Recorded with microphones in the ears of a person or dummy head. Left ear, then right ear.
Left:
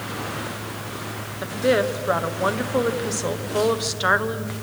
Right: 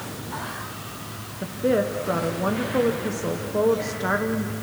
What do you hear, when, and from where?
1.4 s a woman speaking: 50° left (ahead or behind), 0.8 m